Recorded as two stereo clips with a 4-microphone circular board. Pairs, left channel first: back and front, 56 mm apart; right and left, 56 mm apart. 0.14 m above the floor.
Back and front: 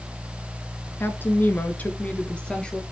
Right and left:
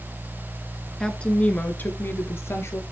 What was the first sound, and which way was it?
A woman speaking, 160° right.